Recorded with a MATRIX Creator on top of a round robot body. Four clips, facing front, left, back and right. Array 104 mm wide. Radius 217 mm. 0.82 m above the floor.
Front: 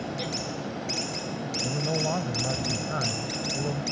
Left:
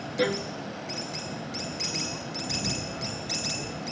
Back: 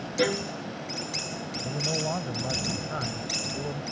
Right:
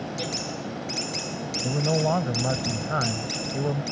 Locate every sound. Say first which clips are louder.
0.2 s a violin: left 5 dB, back 7 dB; 140° left
1.6 s a man speaking: right 12 dB, front 2 dB; 85° right